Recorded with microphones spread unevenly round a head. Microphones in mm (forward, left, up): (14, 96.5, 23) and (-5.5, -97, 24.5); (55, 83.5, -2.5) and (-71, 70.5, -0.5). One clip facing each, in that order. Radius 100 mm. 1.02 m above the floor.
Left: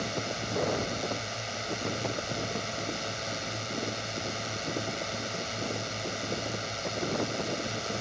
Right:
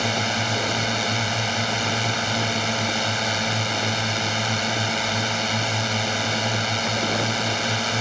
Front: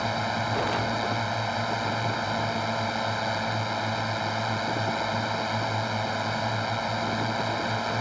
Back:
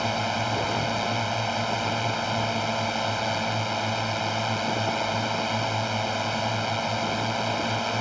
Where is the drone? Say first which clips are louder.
Right 8 dB, back 1 dB; 90° right.